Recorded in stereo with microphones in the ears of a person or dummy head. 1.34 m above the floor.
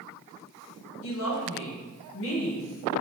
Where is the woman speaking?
70° left (ahead or behind), 1.4 m.